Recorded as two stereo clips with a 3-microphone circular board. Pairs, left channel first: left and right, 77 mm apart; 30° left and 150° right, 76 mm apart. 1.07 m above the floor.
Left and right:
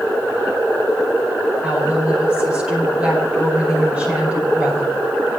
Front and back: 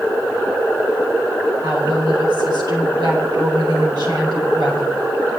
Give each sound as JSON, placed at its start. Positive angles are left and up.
{"t": 1.6, "sound": "a woman speaking", "azimuth_deg": -165, "distance_m": 5.0}